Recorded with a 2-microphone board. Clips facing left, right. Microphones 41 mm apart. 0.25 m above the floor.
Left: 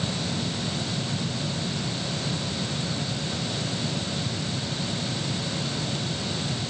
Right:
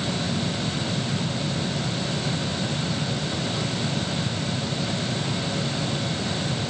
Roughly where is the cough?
I don't hear a cough.